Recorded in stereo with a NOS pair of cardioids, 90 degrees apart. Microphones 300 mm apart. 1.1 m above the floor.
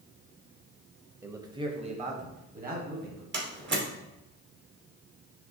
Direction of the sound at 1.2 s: 5° right.